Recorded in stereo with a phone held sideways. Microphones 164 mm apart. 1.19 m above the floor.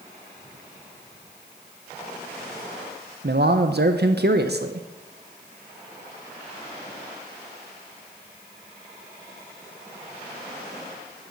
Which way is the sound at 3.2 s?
70° right (ahead or behind).